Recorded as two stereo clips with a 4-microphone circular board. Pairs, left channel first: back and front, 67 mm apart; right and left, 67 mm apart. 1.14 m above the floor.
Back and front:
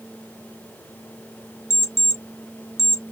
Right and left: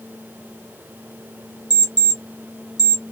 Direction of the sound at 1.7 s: 85° left.